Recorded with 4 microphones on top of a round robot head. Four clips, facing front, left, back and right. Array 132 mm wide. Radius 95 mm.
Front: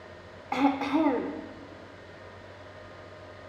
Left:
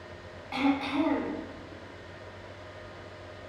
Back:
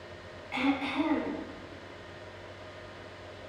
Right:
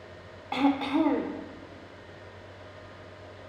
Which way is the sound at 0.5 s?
30° right.